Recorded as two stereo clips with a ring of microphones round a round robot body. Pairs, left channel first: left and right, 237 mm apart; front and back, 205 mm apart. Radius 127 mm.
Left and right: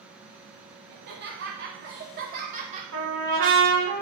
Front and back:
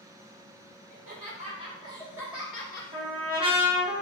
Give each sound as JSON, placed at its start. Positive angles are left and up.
{"t": 0.9, "sound": "laughter", "azimuth_deg": -130, "distance_m": 1.5}
{"t": 2.9, "sound": "a trumpet", "azimuth_deg": -110, "distance_m": 1.9}